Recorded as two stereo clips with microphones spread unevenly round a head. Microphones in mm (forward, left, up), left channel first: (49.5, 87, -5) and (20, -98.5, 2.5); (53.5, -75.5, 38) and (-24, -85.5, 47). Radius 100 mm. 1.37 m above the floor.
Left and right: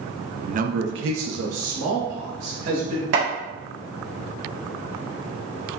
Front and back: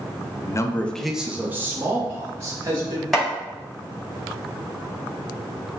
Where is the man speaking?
40° right, 0.5 m; by 3.0 s 125° right, 1.7 m.